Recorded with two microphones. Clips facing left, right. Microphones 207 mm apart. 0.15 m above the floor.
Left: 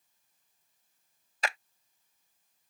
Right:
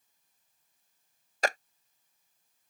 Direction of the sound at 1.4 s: 45° right (ahead or behind).